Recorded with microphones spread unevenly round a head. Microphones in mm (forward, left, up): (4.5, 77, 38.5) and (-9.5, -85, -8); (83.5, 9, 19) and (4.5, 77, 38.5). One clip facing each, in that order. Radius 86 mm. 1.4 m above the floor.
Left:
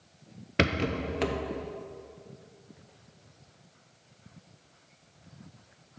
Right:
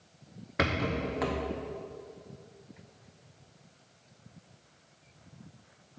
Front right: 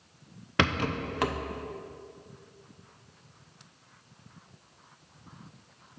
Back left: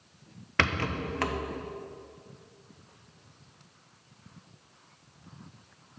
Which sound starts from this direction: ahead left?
A rattle, at 0.6 s.